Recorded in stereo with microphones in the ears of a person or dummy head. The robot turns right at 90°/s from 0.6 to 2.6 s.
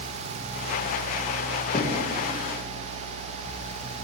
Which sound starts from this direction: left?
Knocking, at 1.7 s.